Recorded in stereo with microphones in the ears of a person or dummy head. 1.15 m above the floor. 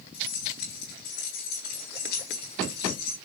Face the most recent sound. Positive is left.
turn(degrees=55)  # may be behind; listen again after turning